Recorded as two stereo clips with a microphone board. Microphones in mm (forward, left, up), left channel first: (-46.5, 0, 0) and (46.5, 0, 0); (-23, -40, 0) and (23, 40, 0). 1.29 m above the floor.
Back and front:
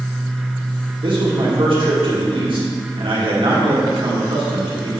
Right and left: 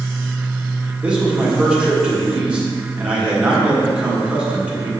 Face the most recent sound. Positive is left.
turn(degrees=-15)